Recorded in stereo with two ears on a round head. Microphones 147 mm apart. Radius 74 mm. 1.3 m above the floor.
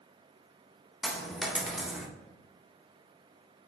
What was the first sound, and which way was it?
A dropped coin, centre (ahead or behind).